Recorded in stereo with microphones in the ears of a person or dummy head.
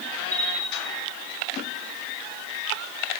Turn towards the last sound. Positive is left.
turn(degrees=-50)  # may be behind; listen again after turning